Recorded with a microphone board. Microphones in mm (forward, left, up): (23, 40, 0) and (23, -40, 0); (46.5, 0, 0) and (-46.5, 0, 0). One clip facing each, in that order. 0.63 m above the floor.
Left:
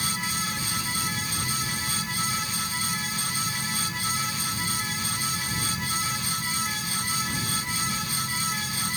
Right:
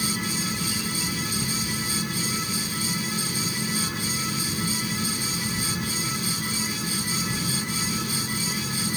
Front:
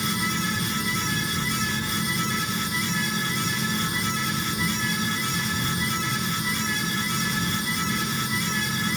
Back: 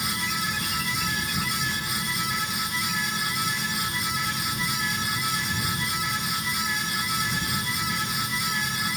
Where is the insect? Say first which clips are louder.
Right 2 dB, front 3 dB; 60° right.